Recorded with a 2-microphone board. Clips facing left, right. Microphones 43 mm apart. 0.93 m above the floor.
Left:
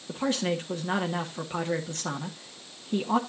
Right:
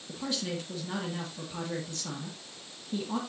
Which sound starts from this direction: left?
A man speaking, at 0.1 s.